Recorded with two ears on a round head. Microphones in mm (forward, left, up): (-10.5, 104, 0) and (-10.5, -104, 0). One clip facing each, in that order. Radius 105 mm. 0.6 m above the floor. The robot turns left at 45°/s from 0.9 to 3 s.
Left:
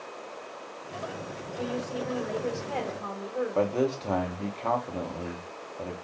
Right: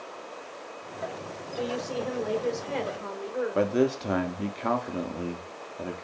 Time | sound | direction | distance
1.6 | a woman speaking | 95° right | 1.3 m
3.5 | a man speaking | 20° right (ahead or behind) | 0.6 m